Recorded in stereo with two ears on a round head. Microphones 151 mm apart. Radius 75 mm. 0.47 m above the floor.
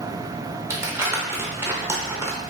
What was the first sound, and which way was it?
Crumpling, 15° right (ahead or behind).